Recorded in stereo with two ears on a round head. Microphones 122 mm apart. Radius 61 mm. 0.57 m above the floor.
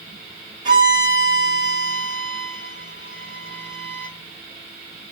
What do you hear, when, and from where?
0.7 s a violin: 30° right (ahead or behind), 4.5 m